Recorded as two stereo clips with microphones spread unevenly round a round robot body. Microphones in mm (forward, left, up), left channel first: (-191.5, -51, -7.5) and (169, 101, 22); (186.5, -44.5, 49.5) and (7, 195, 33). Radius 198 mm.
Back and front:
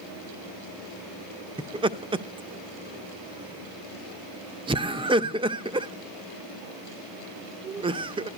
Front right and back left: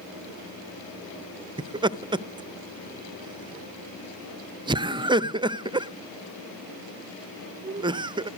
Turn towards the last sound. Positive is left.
turn(degrees=90)